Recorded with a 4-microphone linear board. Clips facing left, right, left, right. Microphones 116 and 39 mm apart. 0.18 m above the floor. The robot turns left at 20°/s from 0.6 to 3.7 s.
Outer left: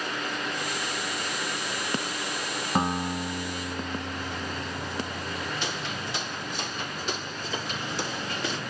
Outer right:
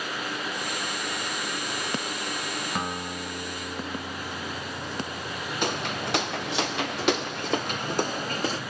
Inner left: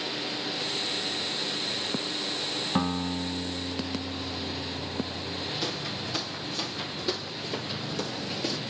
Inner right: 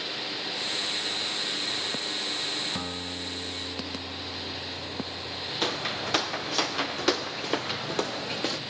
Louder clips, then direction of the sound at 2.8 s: Outer left 9 dB, inner left 6 dB; 35° left (ahead or behind).